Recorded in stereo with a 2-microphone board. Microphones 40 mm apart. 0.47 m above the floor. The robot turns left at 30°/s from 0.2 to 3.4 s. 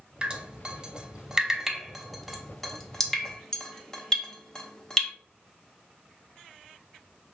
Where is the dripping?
25° right (ahead or behind), 0.6 m; by 5.1 s 20° left (ahead or behind), 0.6 m.